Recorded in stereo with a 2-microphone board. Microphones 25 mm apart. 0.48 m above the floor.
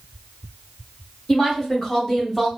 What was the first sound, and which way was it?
A woman speaking, 25° left (ahead or behind).